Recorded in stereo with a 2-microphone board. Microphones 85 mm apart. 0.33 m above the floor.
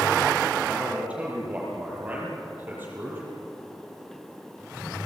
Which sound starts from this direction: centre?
A man speaking, at 0.6 s.